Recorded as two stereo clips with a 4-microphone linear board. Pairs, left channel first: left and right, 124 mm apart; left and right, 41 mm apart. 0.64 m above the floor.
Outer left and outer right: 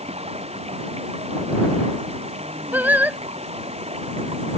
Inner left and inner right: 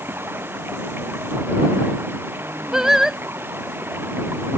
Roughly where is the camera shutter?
No camera shutter in this recording.